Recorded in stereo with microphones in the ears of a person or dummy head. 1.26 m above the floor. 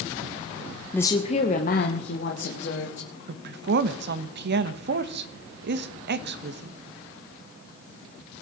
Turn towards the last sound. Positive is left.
turn(degrees=-50)  # may be behind; listen again after turning